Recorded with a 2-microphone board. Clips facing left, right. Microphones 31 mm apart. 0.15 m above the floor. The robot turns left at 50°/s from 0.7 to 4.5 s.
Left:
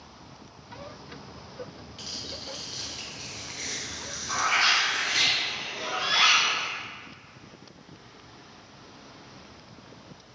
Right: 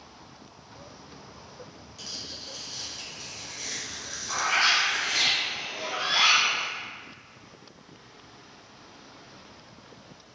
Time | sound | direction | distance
2.0 | tearing paper | 140° left | 1.0 m
4.3 | a bird | 30° left (ahead or behind) | 1.3 m